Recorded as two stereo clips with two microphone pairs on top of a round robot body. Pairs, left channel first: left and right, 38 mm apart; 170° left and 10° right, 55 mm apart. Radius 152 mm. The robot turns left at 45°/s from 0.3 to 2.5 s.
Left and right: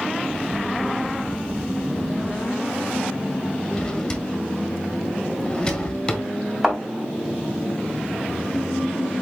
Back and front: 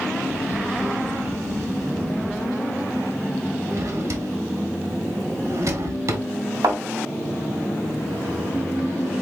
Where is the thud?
15° right, 2.5 m.